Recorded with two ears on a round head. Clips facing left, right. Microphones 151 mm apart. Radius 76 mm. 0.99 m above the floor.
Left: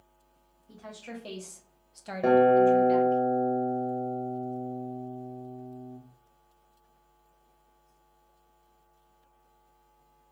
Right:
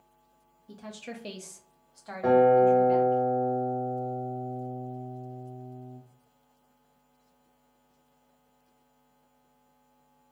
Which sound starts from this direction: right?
A woman speaking, at 0.7 s.